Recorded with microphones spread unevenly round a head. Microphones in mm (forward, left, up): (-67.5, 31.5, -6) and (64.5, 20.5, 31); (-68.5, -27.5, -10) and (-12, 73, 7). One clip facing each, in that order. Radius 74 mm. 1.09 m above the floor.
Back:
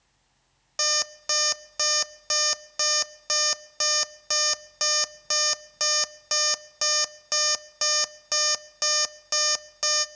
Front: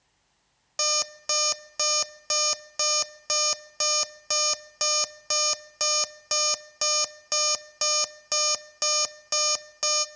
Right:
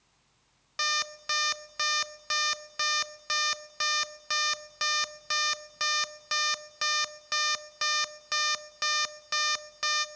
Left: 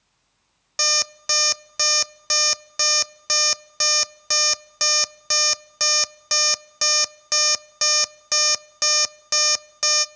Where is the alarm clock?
70° left, 0.5 m.